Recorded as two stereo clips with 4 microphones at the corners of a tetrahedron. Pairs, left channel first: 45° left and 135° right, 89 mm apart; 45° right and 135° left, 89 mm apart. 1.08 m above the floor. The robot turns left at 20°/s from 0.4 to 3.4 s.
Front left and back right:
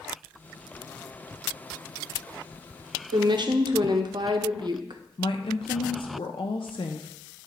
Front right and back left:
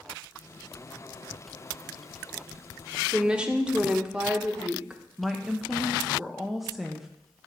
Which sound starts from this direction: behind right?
A woman speaking, at 3.1 s.